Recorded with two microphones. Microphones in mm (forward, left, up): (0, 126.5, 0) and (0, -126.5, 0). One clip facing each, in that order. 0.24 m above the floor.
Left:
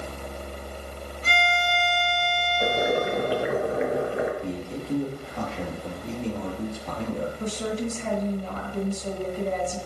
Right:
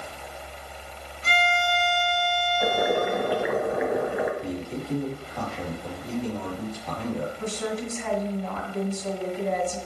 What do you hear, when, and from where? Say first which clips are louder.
1.2 s a violin: right 1 dB; 40° left (ahead or behind), 0.7 m
2.6 s boiling: even; 35° left (ahead or behind), 1.3 m
4.4 s a man speaking: even; 20° left (ahead or behind), 4 m
7.4 s a woman speaking: left 1 dB; 35° left (ahead or behind), 2.0 m